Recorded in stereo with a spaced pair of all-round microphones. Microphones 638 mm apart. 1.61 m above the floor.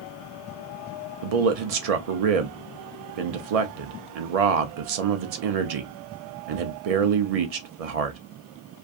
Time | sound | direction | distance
1.2 | a man speaking | 70° right (ahead or behind) | 0.5 m